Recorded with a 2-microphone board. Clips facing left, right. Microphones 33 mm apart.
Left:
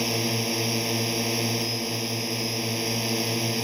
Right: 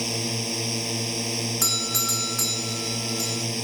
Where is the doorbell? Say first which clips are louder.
Right 2 dB; 75° right (ahead or behind).